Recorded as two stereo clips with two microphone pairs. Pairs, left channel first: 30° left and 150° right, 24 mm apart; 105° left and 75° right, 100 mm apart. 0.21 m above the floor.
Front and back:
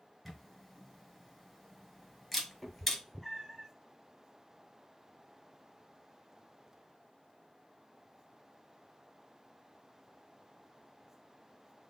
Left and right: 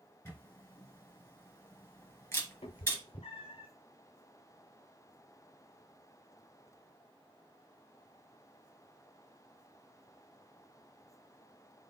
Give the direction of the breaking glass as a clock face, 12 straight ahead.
No breaking glass in this recording.